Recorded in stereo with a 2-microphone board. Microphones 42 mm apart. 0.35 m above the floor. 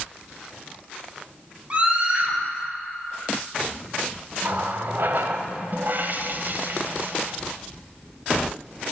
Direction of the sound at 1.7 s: 30° right (ahead or behind).